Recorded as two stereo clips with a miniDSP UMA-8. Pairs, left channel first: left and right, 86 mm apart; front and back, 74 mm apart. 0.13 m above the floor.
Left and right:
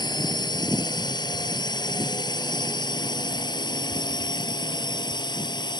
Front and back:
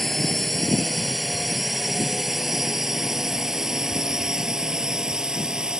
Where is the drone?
85° left; by 5.8 s 100° left.